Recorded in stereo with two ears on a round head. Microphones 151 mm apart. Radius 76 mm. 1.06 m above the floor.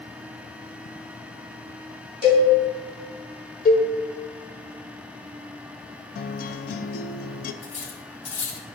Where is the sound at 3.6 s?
50° left (ahead or behind), 1.1 m.